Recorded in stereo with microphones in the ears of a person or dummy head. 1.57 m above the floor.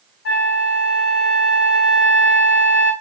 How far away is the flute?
About 3 m.